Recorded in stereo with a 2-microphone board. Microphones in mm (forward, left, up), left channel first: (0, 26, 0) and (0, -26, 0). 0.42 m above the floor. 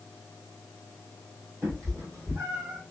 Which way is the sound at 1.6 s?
50° right (ahead or behind).